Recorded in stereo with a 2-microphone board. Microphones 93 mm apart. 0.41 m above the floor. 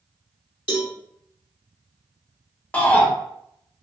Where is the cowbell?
70° left (ahead or behind), 0.8 m.